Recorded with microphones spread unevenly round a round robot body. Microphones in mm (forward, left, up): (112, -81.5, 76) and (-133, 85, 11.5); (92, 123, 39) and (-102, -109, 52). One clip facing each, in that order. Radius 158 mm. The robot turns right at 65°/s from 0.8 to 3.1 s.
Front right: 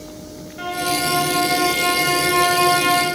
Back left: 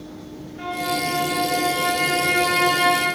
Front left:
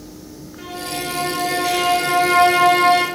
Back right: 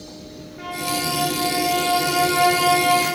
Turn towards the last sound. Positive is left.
turn(degrees=105)